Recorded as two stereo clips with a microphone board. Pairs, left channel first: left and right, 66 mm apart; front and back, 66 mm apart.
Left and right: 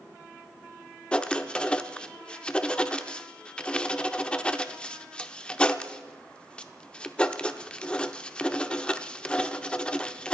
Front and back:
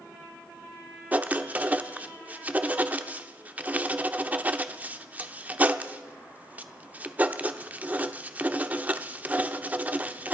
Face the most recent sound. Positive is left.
turn(degrees=150)